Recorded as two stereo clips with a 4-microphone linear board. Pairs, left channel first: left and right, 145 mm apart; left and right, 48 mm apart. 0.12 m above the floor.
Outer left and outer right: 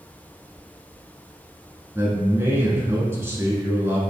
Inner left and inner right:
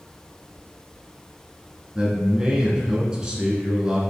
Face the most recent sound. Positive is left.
turn(degrees=-15)  # may be behind; listen again after turning